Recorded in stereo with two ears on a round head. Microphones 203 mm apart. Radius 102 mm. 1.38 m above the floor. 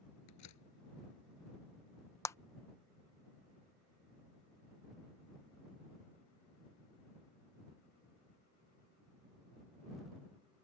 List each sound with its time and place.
0.3 s a door slam: 80° left
2.2 s a clap: 10° left (ahead or behind)